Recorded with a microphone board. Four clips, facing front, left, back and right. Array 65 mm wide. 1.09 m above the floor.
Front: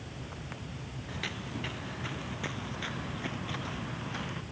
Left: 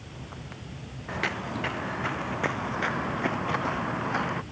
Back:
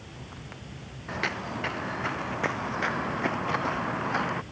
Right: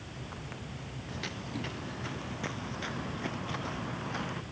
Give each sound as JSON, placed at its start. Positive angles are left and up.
{"t": 1.1, "sound": "footsteps", "azimuth_deg": 135}